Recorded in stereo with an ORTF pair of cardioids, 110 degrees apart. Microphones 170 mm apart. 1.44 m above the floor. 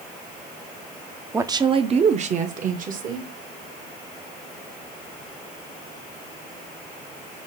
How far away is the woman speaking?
About 0.6 m.